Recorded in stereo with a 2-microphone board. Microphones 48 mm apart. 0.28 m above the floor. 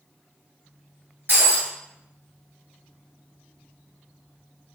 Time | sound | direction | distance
1.3 | breaking glass | 50° right (ahead or behind) | 1.9 m